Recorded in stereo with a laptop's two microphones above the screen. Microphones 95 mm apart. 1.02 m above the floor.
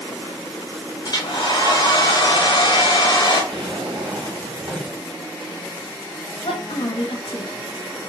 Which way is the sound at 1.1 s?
45° left (ahead or behind).